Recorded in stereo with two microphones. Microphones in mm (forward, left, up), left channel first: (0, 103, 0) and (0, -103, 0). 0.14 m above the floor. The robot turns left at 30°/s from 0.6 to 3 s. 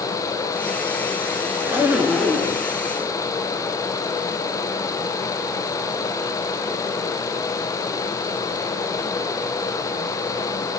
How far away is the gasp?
No gasp in this recording.